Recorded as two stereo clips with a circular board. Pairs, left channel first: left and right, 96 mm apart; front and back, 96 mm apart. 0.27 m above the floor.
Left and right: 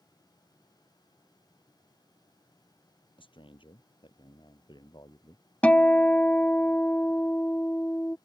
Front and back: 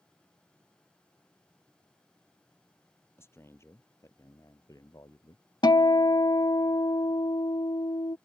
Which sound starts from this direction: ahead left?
A man speaking, at 3.2 s.